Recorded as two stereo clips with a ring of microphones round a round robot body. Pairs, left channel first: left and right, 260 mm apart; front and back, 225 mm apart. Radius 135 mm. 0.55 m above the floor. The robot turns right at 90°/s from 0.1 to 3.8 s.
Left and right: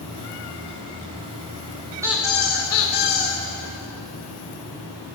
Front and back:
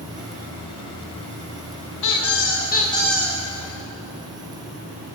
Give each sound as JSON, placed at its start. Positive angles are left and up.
{"t": 2.0, "sound": "a squeak", "azimuth_deg": -10, "distance_m": 5.0}